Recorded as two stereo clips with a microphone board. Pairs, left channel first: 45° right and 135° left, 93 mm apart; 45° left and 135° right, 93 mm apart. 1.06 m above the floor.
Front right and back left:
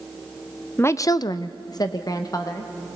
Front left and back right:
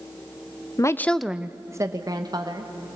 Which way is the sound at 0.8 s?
10° left.